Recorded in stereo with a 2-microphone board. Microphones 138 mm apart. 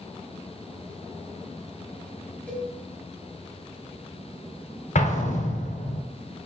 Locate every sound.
2.5 s a cowbell: 10° left (ahead or behind), 1.8 m
5.0 s an explosion: 60° left (ahead or behind), 0.5 m